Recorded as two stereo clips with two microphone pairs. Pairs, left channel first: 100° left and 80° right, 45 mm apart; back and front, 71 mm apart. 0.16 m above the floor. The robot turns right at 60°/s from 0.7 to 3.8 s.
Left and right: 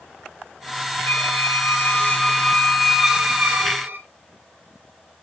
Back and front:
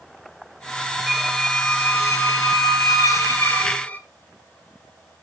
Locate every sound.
1.1 s a squeak: 85° left, 2 m; by 4.0 s 110° right, 2 m